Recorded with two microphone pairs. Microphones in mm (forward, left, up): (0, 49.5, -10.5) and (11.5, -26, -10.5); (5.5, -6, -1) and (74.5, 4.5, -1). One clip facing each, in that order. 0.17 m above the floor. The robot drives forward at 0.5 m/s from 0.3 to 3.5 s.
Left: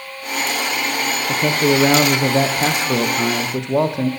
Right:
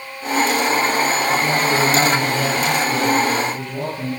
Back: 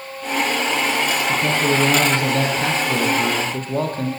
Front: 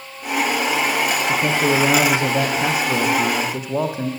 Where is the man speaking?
80° left, 7 m; by 4.1 s 90° left, 7 m.